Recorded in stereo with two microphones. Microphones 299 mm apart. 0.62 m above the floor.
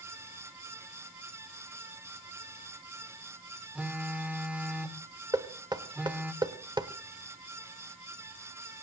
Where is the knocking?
15° right (ahead or behind), 1.3 m.